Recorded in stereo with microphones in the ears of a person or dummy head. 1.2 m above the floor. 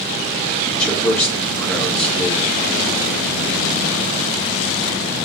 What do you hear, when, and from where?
0.7 s a man speaking: 5° left (ahead or behind), 1.7 m